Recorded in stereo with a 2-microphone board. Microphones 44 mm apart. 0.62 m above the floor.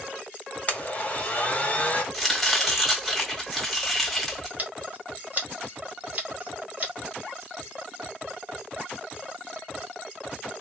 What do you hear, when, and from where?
0.7 s a blender: 30° left (ahead or behind), 0.7 m
2.1 s chopping: centre (ahead or behind), 1.4 m
4.6 s scissors: 40° right (ahead or behind), 1.4 m